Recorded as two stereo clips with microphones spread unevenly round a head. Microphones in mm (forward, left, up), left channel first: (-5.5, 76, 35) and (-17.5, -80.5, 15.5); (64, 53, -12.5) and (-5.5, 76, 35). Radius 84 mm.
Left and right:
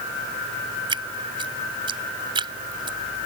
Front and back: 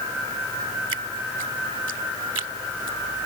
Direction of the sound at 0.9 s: 155° right.